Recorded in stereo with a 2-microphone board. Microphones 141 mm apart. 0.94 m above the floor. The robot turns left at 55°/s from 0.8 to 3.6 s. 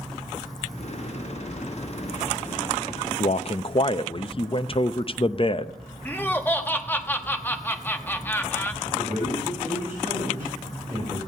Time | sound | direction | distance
3.2 | a man speaking | 60° left (ahead or behind) | 0.5 m
6.0 | laughter | 15° left (ahead or behind) | 1.2 m
8.8 | a man speaking | 15° right (ahead or behind) | 5.5 m